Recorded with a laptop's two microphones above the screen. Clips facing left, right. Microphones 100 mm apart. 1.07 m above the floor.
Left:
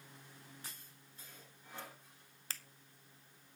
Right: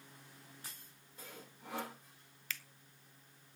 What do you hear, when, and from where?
1.2 s sawing: 85° right, 2 m
2.5 s a finger snap: 35° left (ahead or behind), 0.7 m